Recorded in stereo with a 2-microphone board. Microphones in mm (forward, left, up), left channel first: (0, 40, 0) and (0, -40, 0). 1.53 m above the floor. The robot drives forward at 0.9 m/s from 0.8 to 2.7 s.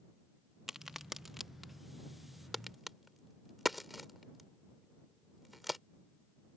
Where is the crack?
5° right (ahead or behind).